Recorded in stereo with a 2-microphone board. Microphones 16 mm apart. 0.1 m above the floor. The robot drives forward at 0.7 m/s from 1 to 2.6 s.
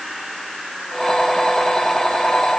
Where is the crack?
No crack in this recording.